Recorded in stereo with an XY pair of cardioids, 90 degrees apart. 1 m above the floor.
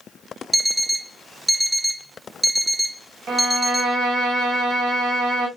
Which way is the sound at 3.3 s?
70° right.